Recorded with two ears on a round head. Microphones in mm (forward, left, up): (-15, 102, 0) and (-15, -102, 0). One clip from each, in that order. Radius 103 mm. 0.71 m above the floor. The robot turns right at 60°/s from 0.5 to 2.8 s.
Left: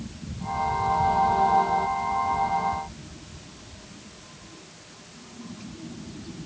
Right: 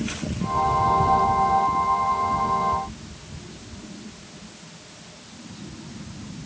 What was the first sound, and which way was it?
Only background noise.